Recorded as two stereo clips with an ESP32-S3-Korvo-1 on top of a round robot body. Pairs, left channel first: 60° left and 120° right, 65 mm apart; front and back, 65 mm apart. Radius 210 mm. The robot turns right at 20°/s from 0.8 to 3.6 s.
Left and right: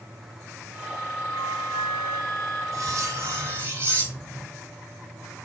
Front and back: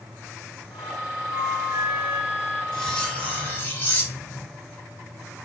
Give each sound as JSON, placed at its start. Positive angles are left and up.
{"t": 1.3, "sound": "a flute", "azimuth_deg": -125, "distance_m": 1.4}
{"t": 2.7, "sound": "cutlery clinking", "azimuth_deg": -80, "distance_m": 2.5}